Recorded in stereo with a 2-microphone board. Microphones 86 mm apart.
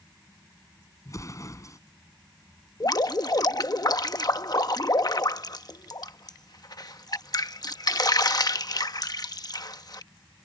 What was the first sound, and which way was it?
An explosion, 40° left (ahead or behind).